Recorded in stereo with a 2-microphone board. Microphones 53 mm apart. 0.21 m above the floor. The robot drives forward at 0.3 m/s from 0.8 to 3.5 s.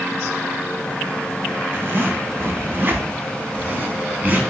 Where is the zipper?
45° right (ahead or behind), 0.5 m; by 4.4 s 35° right (ahead or behind), 0.6 m.